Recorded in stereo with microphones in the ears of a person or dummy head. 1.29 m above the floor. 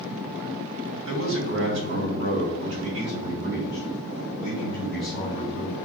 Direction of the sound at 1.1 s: 70° right (ahead or behind).